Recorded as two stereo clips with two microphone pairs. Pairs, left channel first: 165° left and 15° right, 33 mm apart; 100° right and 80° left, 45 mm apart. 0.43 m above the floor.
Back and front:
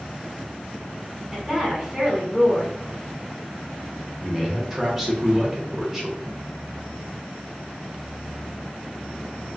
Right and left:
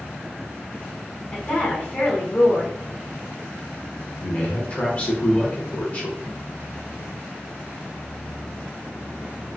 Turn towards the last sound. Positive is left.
turn(degrees=-85)